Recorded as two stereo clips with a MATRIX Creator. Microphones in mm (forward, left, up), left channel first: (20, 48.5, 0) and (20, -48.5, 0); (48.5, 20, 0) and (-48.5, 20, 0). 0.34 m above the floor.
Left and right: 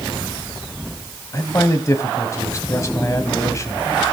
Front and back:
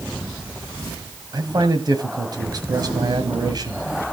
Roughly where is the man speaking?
Behind left.